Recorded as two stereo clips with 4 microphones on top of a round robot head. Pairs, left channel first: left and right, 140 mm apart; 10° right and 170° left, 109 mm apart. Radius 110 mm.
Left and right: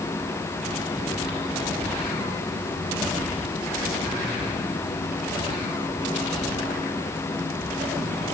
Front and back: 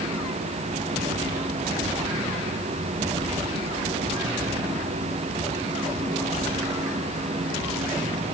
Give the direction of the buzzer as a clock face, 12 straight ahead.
I don't hear a buzzer.